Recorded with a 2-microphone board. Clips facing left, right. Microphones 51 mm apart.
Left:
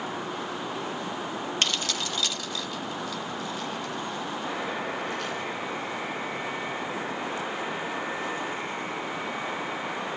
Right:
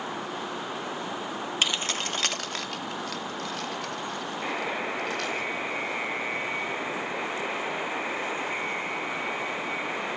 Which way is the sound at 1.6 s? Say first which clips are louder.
Right 2 dB; 10° right (ahead or behind).